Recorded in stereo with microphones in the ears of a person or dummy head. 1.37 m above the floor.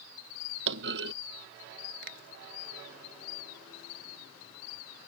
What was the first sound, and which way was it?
A clunk, 65° right (ahead or behind).